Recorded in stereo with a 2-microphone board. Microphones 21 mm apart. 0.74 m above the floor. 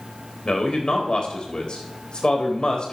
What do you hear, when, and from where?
0.5 s a man speaking: 50° left (ahead or behind), 4 m